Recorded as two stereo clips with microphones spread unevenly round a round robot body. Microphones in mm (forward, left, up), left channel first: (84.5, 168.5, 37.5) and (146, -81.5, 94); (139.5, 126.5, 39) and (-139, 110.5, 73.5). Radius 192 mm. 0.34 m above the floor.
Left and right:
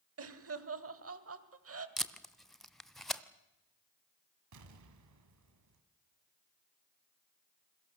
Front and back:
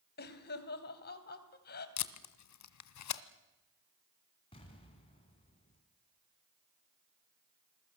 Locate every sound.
0.2 s laughter: 45° right, 2.5 m
2.0 s tape being pulled: 20° left, 1.3 m
4.5 s an explosion: 70° right, 2 m